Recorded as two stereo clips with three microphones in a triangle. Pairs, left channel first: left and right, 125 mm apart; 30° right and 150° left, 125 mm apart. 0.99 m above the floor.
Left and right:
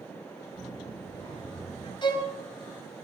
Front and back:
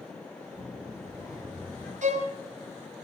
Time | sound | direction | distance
0.5 | a child speaking | 30° left | 6.5 m
2.0 | a violin | 140° left | 2.5 m